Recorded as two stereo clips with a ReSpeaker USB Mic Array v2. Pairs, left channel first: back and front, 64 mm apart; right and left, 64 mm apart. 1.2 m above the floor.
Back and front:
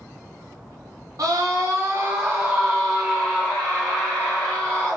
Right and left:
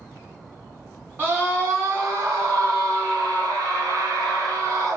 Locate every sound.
1.2 s a scream: 25° left, 1.0 m; by 5.0 s 115° left, 2.5 m